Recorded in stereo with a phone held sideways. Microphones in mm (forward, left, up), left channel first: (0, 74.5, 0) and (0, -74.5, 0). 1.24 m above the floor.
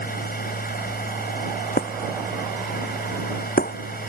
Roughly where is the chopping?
No chopping in this recording.